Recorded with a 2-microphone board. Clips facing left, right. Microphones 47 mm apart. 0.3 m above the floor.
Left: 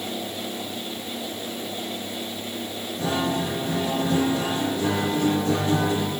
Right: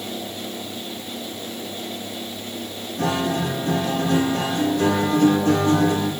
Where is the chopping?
I don't hear chopping.